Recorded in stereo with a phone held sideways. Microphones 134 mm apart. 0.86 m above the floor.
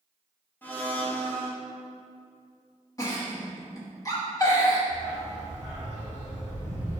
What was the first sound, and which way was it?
A blender, 15° left (ahead or behind).